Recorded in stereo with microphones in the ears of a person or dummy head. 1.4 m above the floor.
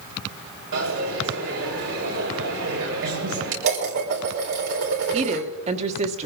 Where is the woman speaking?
35° right (ahead or behind), 1.3 m.